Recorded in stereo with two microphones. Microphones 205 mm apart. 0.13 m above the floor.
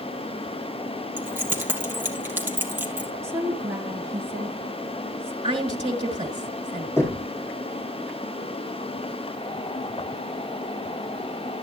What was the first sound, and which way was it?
Keys jangling, 10° right (ahead or behind).